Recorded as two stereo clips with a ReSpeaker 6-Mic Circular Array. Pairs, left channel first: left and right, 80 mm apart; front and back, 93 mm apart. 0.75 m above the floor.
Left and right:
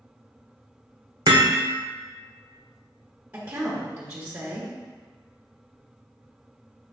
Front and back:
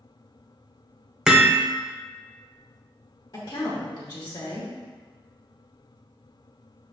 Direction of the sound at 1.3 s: 95° right.